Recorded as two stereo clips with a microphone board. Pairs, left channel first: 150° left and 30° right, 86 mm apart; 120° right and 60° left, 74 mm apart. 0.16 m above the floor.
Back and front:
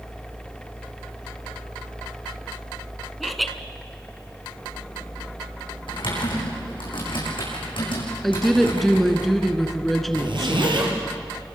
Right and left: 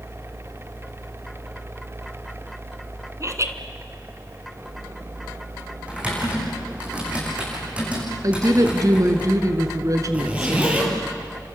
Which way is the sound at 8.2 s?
60° left.